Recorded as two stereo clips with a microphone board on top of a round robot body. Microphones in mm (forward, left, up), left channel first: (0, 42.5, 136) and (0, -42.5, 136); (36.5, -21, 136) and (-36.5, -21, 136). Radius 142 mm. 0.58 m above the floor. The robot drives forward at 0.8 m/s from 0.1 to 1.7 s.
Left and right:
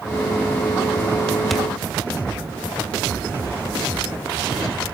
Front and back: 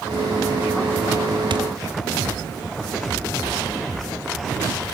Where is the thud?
Straight behind, 1.3 m.